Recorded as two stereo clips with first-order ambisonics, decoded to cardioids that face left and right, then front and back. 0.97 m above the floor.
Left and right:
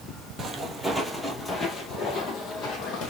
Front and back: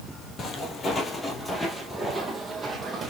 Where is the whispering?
No whispering in this recording.